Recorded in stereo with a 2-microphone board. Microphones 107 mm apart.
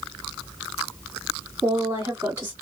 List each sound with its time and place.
1.6 s a woman speaking: 25° right (ahead or behind), 1.6 m